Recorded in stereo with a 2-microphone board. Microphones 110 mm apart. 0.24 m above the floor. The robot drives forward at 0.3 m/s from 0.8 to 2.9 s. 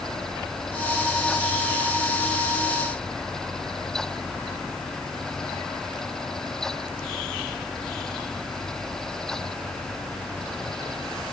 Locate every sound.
Only background noise.